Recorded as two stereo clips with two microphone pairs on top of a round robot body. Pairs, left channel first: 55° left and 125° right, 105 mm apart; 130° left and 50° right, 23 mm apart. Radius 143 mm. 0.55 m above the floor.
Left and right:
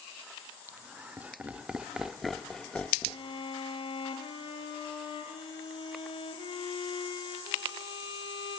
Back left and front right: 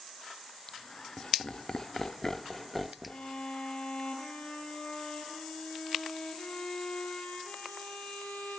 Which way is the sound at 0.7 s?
170° left.